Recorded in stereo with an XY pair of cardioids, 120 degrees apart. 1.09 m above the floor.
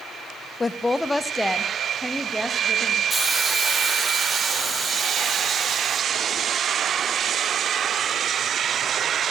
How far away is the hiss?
About 3.5 m.